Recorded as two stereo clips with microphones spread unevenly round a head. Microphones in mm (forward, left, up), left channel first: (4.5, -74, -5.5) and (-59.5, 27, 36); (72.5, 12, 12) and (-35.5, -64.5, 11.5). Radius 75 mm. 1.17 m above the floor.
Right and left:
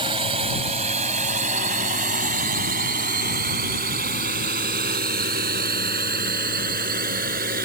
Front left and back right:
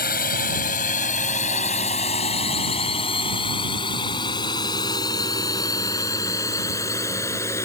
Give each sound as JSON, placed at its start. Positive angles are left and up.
{"t": 0.0, "sound": "a drone", "azimuth_deg": 65}